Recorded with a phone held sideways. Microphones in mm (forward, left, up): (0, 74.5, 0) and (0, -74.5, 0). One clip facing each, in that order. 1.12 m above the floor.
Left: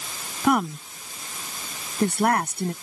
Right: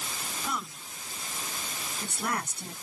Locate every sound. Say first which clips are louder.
0.4 s a woman speaking: left 17 dB; 70° left (ahead or behind)